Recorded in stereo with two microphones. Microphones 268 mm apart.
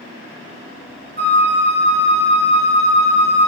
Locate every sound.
1.2 s a flute: 25° left (ahead or behind), 1.3 m